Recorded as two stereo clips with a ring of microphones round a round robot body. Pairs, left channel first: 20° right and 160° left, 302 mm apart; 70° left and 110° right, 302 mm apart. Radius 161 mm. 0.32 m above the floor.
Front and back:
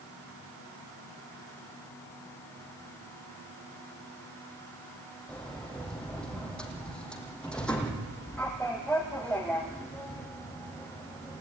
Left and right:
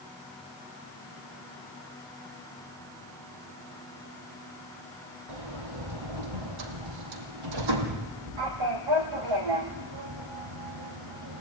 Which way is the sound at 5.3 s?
110° right.